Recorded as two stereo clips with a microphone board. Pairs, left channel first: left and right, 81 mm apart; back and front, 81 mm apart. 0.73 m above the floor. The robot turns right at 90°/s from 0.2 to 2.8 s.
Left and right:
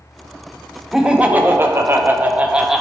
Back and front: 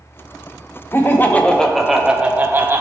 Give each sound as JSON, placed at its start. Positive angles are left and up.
{"t": 0.9, "sound": "laughter", "azimuth_deg": -175, "distance_m": 0.7}